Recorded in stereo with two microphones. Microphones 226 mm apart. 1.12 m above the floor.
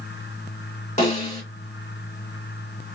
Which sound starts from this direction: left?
A snare drum, at 1.0 s.